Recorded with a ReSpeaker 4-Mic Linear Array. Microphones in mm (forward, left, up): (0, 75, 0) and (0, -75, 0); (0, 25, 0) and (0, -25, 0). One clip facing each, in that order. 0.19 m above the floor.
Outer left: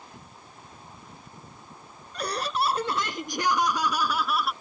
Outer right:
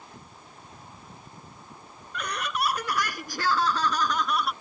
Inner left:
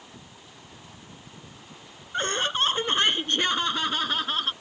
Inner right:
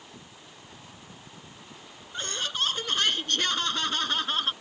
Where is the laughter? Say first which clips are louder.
Outer left 3 dB, inner left 6 dB; 35° left (ahead or behind); by 4.5 s centre (ahead or behind).